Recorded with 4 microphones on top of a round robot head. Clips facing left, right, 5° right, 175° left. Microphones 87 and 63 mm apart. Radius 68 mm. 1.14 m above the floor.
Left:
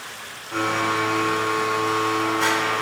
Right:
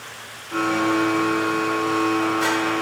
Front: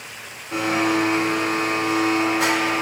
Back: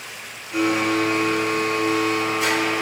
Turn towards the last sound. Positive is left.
turn(degrees=-5)